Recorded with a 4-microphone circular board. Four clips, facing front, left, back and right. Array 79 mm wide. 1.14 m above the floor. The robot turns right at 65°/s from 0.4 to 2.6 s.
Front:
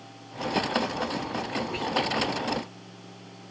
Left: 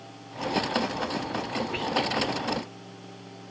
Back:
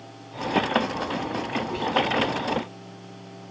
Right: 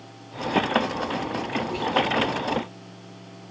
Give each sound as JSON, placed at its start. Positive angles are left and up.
{"t": 1.7, "sound": "whispering", "azimuth_deg": 75, "distance_m": 0.5}